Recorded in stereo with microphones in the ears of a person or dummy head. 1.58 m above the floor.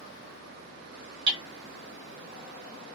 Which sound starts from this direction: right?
Hammering, at 1.3 s.